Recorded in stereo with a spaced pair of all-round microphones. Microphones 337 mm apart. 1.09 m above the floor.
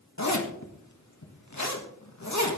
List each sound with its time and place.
0.2 s a zipper: 55° left (ahead or behind), 1.7 m